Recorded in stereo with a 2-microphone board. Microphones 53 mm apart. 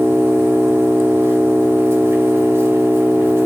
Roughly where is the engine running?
Right.